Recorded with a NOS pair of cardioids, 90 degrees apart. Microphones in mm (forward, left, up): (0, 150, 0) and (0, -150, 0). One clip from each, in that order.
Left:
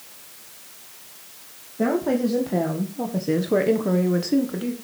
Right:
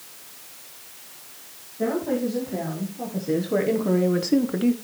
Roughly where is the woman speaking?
Ahead left.